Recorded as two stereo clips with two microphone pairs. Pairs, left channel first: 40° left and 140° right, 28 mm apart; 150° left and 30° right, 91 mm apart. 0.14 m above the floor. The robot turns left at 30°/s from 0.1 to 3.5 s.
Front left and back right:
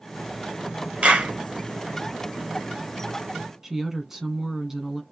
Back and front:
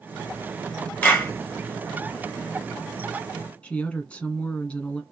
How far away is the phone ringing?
No phone ringing in this recording.